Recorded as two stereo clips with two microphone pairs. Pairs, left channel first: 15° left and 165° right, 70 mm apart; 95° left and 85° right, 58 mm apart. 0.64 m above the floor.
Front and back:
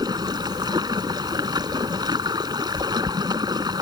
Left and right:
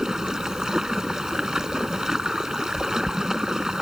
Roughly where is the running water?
Behind.